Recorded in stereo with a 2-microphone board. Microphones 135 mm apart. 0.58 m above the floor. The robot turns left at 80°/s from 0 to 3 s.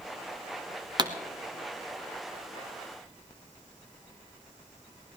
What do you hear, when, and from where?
1.0 s a pop: 35° right (ahead or behind), 1.3 m; by 1.1 s 25° right (ahead or behind), 1.3 m